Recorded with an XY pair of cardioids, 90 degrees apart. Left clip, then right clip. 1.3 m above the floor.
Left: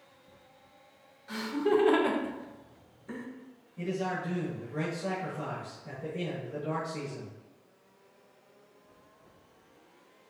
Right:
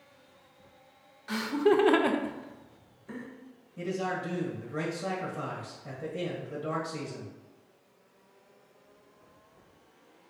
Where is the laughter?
60° right, 0.8 m; by 3.3 s 25° left, 0.8 m.